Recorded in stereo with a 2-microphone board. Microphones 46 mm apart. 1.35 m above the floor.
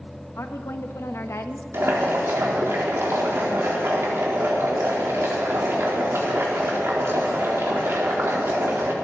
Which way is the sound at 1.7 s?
75° right (ahead or behind).